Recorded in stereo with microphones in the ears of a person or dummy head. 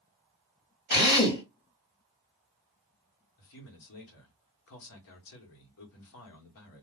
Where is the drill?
45° left (ahead or behind), 1.5 m.